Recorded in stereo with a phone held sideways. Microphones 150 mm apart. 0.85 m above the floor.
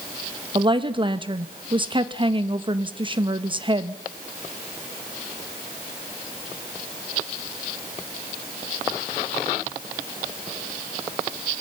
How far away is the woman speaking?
About 1.0 m.